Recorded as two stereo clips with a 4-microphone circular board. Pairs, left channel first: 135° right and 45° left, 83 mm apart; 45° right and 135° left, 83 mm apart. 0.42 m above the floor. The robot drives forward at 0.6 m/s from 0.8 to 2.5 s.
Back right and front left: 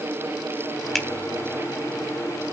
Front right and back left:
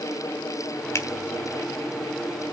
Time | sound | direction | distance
0.9 | a finger snap | 50° right | 1.2 m